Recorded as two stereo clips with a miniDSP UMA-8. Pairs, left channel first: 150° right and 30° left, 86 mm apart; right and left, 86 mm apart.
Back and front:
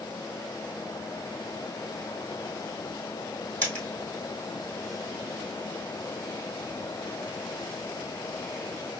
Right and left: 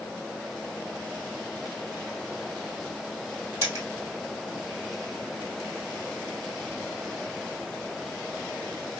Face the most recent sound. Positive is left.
turn(degrees=145)